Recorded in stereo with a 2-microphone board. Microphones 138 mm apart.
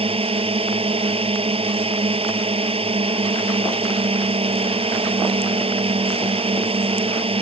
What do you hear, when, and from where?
0.0 s a drone: 45° right (ahead or behind)